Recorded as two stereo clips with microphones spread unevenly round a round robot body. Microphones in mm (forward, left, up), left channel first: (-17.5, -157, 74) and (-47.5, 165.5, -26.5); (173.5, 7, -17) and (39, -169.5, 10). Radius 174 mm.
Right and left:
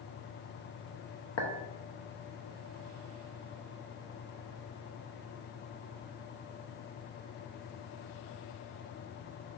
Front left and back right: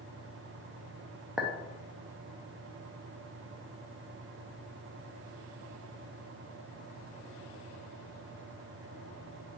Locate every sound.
1.4 s a clink: 35° right, 0.6 m